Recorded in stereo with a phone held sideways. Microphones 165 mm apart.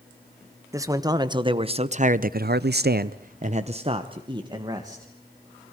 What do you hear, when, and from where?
0.7 s a man speaking: 20° right (ahead or behind), 1.4 m